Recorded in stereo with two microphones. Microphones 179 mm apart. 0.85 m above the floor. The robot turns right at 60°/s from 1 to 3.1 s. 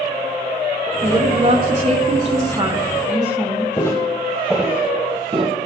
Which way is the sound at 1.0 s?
140° right.